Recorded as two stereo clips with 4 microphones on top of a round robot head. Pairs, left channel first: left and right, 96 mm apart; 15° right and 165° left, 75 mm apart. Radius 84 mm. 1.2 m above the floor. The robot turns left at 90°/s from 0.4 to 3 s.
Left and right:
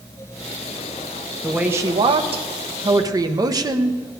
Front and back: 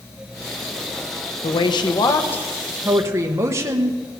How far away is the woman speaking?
About 1.1 m.